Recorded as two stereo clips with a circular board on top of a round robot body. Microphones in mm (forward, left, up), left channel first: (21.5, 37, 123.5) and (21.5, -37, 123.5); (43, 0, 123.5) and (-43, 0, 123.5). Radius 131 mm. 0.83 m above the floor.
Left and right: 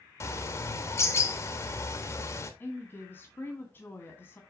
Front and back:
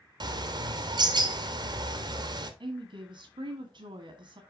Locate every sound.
0.2 s a bird: 145° left, 1.1 m
2.6 s a woman speaking: 160° left, 1.6 m